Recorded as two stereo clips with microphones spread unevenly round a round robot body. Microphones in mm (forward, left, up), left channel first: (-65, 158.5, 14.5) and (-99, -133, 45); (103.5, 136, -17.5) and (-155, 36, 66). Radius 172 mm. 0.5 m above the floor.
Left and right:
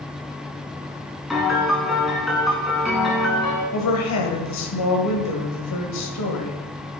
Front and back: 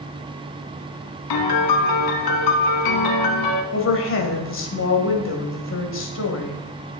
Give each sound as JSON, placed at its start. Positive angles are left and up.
{"t": 1.3, "sound": "a piano", "azimuth_deg": -10, "distance_m": 1.0}
{"t": 3.7, "sound": "a woman speaking", "azimuth_deg": 50, "distance_m": 2.0}